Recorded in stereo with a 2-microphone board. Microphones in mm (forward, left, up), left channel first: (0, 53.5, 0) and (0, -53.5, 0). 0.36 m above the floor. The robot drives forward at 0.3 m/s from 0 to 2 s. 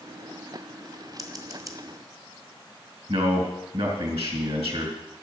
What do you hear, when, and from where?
1.2 s scissors: 35° right (ahead or behind), 1.3 m
3.1 s a man speaking: 70° right (ahead or behind), 3.5 m